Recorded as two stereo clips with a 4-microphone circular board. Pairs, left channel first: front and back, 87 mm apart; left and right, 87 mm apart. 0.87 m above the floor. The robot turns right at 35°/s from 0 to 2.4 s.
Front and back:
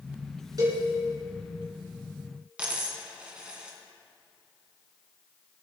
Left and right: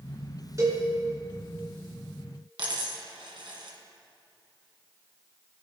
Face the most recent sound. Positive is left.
turn(degrees=-105)